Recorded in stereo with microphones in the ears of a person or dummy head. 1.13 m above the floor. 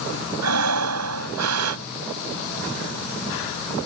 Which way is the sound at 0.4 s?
90° right.